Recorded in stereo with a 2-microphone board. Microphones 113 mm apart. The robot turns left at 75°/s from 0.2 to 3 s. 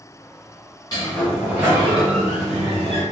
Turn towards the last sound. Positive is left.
turn(degrees=-125)